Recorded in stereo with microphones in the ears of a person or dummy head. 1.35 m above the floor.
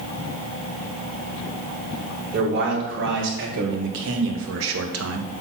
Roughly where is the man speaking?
Right.